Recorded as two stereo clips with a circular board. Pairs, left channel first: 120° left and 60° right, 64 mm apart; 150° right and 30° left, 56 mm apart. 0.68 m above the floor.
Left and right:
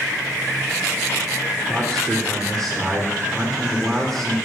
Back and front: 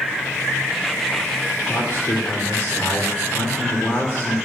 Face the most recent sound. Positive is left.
turn(degrees=-155)